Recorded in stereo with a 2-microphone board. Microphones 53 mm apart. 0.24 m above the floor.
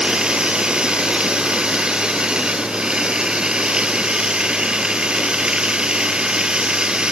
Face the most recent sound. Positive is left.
turn(degrees=-15)  # may be behind; listen again after turning